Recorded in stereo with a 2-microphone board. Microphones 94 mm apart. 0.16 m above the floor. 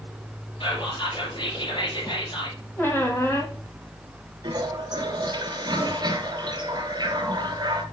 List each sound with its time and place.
0.6 s whispering: 65° left (ahead or behind), 3.5 m
2.8 s a squeak: 20° left (ahead or behind), 1.5 m
4.4 s a toilet flushing: 50° right (ahead or behind), 1.5 m